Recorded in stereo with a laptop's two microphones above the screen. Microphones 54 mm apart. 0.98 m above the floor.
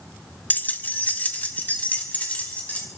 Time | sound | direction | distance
0.5 | keys jangling | 30° left (ahead or behind) | 0.6 m